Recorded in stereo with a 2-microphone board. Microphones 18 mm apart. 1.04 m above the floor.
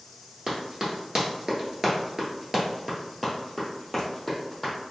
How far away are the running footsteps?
About 1.3 m.